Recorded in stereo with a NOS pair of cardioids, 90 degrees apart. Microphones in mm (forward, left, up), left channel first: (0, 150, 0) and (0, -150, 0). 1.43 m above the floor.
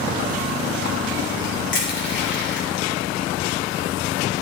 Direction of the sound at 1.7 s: 40° left.